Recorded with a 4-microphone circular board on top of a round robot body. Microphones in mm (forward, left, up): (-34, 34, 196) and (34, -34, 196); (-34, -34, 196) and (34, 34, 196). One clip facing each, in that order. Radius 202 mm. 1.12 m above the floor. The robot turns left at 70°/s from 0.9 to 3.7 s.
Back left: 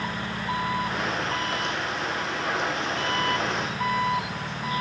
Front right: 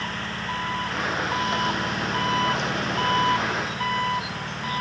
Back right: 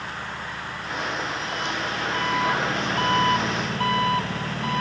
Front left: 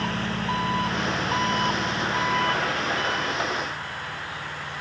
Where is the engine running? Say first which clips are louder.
Back left 1 dB, front left 5 dB; 55° left; by 4.8 s 140° right.